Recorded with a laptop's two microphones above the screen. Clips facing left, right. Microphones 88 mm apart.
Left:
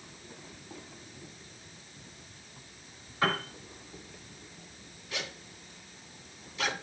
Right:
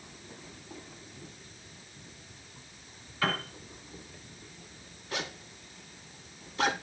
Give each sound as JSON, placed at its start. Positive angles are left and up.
{"t": 3.2, "sound": "a piano", "side_deg": 25, "distance_m": 1.9}
{"t": 5.1, "sound": "a zipper", "side_deg": -40, "distance_m": 1.3}